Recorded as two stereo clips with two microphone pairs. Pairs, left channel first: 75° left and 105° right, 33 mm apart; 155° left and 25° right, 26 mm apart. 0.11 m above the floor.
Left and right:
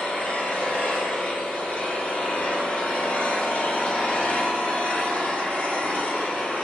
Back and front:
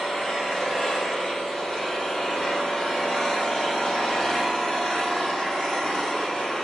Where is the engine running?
90° left, 1.7 m.